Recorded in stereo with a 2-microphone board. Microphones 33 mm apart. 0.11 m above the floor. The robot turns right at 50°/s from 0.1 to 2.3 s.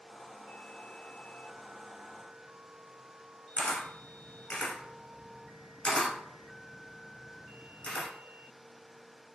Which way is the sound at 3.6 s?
30° left (ahead or behind).